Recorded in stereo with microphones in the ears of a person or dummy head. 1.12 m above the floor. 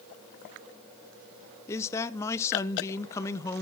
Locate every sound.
1.7 s a man speaking: 15° left (ahead or behind), 0.7 m